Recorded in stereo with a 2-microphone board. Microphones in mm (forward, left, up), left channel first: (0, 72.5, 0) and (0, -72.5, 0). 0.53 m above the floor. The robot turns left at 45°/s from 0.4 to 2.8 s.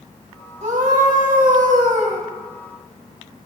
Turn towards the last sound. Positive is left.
turn(degrees=-155)